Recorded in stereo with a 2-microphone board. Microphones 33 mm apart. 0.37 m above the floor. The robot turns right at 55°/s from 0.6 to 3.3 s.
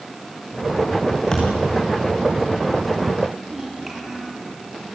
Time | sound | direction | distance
1.3 | a thud | 25° left (ahead or behind) | 4.5 m
3.5 | a child speaking | 10° right (ahead or behind) | 6.5 m